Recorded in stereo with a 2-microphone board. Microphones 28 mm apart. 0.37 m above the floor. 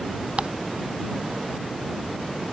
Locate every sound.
0.4 s ticking: 45° right (ahead or behind)